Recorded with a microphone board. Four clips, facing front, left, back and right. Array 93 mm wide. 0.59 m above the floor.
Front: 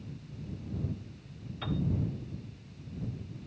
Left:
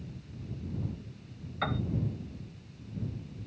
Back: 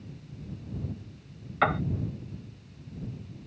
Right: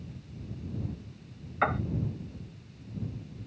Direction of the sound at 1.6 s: 160° right.